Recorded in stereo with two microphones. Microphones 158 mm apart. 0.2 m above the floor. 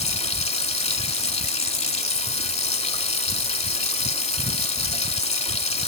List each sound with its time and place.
0.0 s running water: 40° left (ahead or behind), 0.7 m